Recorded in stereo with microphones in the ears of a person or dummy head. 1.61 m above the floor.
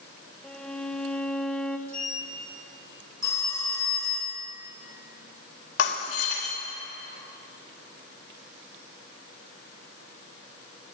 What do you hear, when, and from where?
0.4 s a violin: 10° left (ahead or behind), 0.7 m
1.9 s a sliding door: 35° right (ahead or behind), 1.9 m
3.2 s a phone ringing: 20° left (ahead or behind), 1.6 m
5.8 s breaking glass: 65° left (ahead or behind), 1.9 m